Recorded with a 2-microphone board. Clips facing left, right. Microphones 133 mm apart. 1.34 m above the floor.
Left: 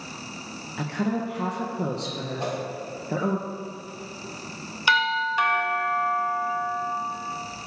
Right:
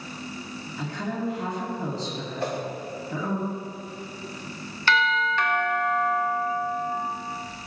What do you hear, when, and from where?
0.8 s a woman speaking: 65° left (ahead or behind), 1.3 m
2.4 s a whoosh: 20° left (ahead or behind), 2.5 m
4.9 s a doorbell: 15° left (ahead or behind), 1.1 m